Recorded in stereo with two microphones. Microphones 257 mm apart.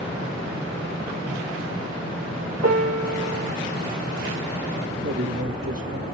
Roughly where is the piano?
Right.